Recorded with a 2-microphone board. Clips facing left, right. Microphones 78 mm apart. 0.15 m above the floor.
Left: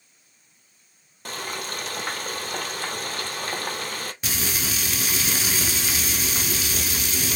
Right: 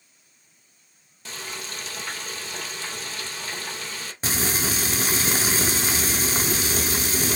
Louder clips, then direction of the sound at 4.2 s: Right 6 dB; 35° right (ahead or behind).